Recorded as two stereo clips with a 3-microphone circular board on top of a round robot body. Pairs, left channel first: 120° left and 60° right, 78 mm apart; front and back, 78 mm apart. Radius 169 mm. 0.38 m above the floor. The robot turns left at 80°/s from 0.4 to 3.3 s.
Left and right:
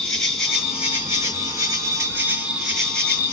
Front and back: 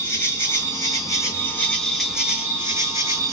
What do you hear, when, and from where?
0.0 s an insect: 40° left, 2 m; by 3.3 s 170° left, 2 m